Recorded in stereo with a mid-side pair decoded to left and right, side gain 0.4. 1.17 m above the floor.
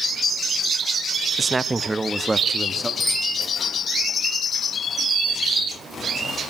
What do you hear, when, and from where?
1.4 s a man speaking: 30° right, 1.0 m; by 2.9 s 15° right, 2.5 m
3.0 s a bicycle bell: 20° left, 7 m